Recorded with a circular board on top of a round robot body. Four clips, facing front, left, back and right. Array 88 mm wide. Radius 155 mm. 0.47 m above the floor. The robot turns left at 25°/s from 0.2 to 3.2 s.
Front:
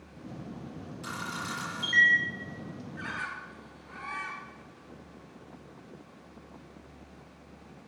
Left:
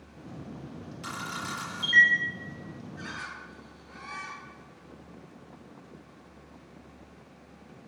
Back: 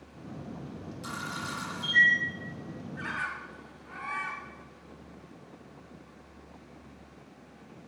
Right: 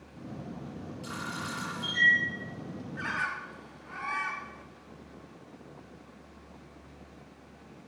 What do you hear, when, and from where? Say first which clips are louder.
1.0 s a camera shutter: left 2 dB, even; 75° left, 7.5 m; by 2.1 s 50° left, 7.5 m
2.9 s a bird: right 8 dB, back 2 dB; 105° right, 1.4 m; by 4.7 s 110° right, 1.4 m